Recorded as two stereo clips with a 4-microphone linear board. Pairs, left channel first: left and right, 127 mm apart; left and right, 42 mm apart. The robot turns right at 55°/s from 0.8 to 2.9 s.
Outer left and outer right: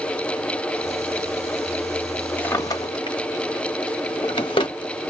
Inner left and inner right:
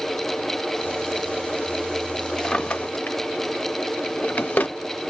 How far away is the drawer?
About 0.7 m.